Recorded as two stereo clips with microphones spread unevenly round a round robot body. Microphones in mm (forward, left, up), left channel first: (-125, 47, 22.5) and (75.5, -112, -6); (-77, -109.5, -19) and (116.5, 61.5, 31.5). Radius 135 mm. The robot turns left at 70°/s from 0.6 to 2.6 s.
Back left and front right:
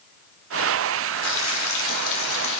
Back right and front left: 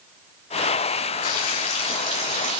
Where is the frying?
170° right, 5 m; by 2.6 s 90° left, 5 m.